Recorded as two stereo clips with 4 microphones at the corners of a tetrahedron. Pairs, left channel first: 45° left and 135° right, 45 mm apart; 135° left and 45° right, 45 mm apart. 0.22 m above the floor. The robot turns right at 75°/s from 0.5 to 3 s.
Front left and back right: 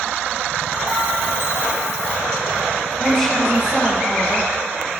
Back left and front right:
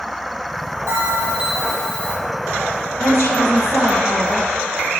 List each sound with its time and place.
0.9 s a bell: 15° right, 7.5 m; by 2.1 s 80° left, 7.5 m
3.0 s a woman speaking: 130° left, 5 m